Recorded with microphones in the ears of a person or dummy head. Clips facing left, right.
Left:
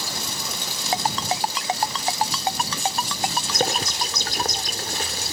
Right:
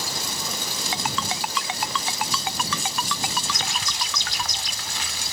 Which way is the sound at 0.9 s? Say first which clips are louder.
Left 5 dB; 35° left (ahead or behind).